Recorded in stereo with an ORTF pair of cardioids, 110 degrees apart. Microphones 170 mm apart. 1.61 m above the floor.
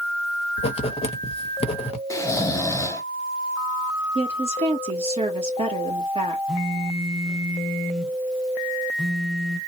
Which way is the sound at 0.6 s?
35° left.